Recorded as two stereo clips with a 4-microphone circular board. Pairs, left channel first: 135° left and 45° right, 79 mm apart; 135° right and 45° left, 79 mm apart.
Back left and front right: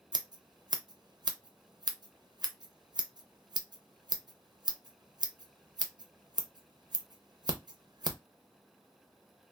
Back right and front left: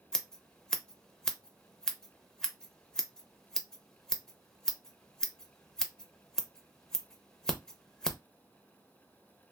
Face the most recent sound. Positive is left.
turn(degrees=-50)